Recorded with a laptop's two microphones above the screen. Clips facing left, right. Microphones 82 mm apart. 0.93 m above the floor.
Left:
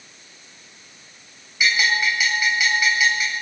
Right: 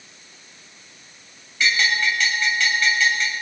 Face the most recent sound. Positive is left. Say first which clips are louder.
# left 1 dB
turn(degrees=10)  # may be behind; listen again after turning